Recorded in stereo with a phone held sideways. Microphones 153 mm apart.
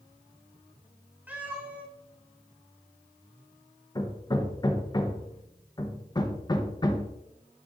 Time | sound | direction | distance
1.3 | a cat meowing | 10° right (ahead or behind) | 2.5 m
4.0 | hammering | 25° left (ahead or behind) | 0.9 m